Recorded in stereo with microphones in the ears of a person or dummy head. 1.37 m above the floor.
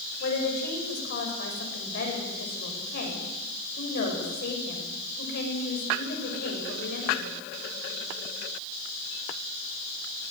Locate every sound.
0.2 s a woman speaking: 55° left (ahead or behind), 8 m